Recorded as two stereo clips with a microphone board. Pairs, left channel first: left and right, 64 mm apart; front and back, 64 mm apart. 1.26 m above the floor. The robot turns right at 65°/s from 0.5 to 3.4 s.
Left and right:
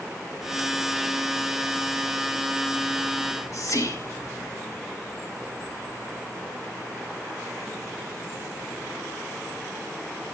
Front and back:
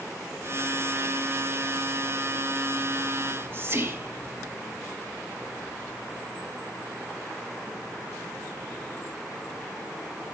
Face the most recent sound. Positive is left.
turn(degrees=125)